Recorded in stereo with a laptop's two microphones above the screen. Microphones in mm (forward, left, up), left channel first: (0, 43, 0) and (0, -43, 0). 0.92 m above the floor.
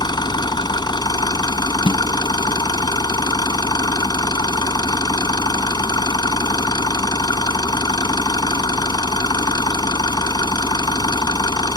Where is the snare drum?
80° left.